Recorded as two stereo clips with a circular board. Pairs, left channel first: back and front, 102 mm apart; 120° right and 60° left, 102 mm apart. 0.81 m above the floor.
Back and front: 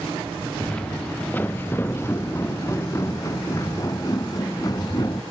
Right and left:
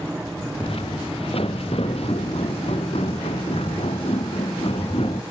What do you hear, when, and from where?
0.6 s footsteps: 100° right; by 5.2 s 130° right